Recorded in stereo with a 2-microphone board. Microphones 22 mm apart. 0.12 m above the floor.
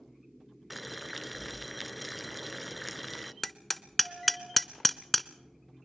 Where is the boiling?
5° right (ahead or behind), 0.5 m.